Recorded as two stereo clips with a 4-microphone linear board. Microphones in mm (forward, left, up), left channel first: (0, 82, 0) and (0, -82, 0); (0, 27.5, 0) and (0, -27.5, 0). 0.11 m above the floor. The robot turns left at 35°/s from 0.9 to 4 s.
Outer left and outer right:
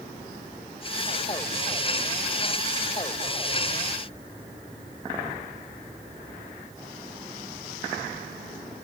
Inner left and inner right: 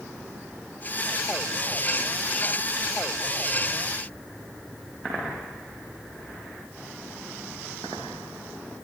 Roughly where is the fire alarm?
I don't hear a fire alarm.